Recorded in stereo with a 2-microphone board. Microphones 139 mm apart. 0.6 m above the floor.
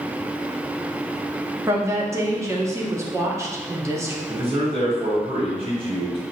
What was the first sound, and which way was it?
A woman speaking, 20° right (ahead or behind).